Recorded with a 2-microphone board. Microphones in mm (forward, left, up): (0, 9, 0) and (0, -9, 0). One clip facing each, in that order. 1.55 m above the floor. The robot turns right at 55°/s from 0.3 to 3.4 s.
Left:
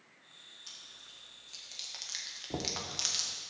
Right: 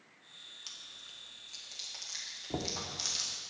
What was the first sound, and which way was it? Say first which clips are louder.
Chewing: right 1 dB; 45° right (ahead or behind).